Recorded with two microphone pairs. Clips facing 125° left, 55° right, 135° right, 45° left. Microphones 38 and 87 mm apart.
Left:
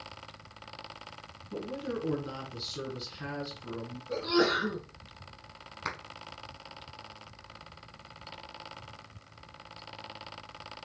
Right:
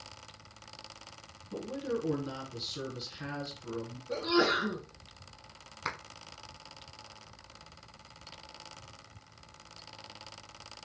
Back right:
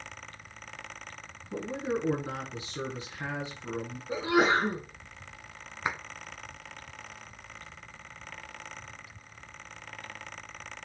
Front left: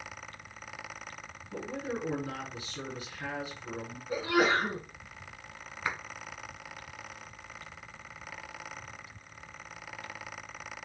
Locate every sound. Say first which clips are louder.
1.5 s a man speaking: right 1 dB, back right 4 dB; 145° right, 1.2 m
4.1 s a sneeze: left 1 dB, back right 2 dB; 135° right, 1.3 m
5.8 s a clap: even, back right 2 dB; 140° right, 0.8 m